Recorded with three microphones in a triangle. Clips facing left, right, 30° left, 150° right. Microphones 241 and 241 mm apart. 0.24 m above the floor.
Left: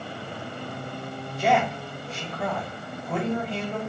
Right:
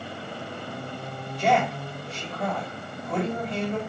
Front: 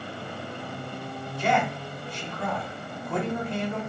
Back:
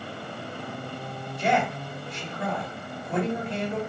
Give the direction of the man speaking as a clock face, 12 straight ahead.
6 o'clock.